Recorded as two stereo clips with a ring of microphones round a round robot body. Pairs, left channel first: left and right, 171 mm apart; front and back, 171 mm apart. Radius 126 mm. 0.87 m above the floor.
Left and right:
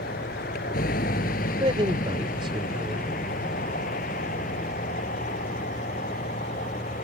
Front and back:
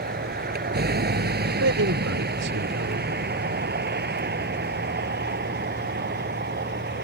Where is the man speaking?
160° right.